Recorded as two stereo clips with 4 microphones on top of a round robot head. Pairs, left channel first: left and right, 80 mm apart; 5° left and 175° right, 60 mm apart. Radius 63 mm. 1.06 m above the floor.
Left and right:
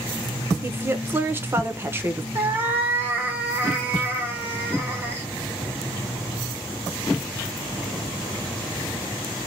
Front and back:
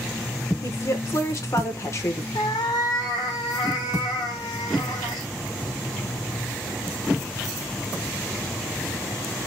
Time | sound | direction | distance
0.6 | a woman speaking | 30° right | 1.0 m
2.4 | a cat meowing | 25° right | 1.0 m